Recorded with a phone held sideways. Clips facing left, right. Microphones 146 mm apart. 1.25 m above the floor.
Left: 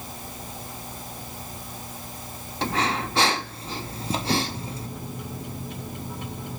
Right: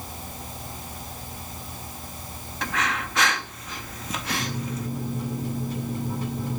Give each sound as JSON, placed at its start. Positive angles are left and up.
{"t": 2.6, "sound": "breathing", "side_deg": 30, "distance_m": 0.7}
{"t": 4.4, "sound": "a microwave", "side_deg": -35, "distance_m": 8.0}